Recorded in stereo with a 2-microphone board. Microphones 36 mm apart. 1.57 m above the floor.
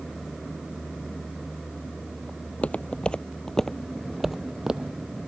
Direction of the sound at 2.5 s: 45° left (ahead or behind).